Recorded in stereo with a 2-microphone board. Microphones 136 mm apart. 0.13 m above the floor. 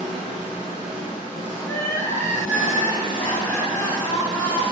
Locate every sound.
0.0 s an engine running: 10° right (ahead or behind), 1.1 m
1.6 s crying: 20° left (ahead or behind), 0.6 m